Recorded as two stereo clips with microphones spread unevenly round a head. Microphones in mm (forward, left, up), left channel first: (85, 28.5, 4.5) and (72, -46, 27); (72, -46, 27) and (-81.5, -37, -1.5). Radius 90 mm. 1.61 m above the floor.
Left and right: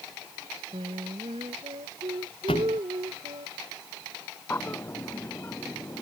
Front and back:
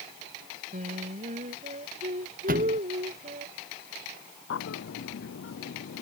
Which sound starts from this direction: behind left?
A thud, at 2.5 s.